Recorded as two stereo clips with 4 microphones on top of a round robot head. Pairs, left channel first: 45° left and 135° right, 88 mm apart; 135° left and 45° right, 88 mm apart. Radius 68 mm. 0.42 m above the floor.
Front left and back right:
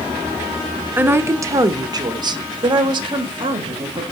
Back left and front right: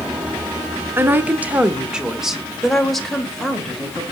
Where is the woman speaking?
85° right, 1.0 m; by 4.0 s 145° right, 2 m.